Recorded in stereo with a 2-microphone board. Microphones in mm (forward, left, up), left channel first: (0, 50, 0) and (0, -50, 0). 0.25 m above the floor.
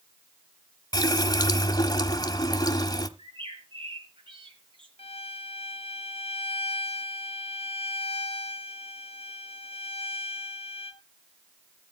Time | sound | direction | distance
0.9 | a running tap | 40° left (ahead or behind) | 1.0 m
3.2 | a bird | 60° right (ahead or behind) | 3.5 m
5.0 | a violin | 80° left | 1.3 m